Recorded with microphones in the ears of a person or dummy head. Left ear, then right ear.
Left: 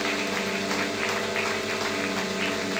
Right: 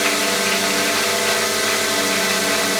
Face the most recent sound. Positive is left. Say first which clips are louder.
# right 9 dB
turn(degrees=-55)  # may be behind; listen again after turning